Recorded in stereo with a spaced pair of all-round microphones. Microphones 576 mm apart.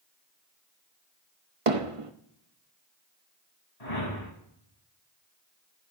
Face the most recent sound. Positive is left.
turn(degrees=85)